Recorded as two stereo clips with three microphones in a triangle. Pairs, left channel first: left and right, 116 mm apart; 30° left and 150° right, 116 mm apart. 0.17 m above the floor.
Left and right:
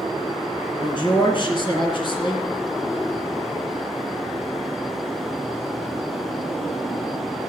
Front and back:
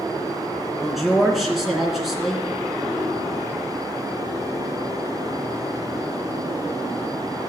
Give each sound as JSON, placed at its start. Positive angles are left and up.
{"t": 0.8, "sound": "a man speaking", "azimuth_deg": 120, "distance_m": 2.5}